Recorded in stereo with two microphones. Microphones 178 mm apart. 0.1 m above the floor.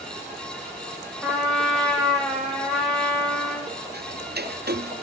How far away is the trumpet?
About 5.5 m.